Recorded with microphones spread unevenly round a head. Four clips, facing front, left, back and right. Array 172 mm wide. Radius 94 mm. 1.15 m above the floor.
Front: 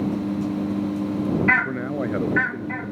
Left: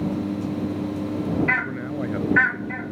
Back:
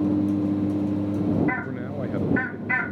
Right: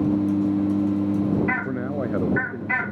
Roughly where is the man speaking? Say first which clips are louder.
Right 2 dB, front 4 dB; ahead right.